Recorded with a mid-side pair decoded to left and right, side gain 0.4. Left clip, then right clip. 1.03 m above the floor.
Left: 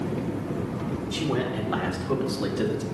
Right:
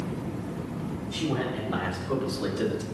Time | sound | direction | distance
1.1 | a man speaking | 60° left | 3 m